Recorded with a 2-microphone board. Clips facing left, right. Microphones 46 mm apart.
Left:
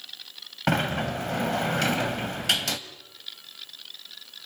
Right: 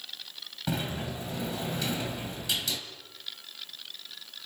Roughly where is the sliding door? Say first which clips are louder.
Left 8 dB; left.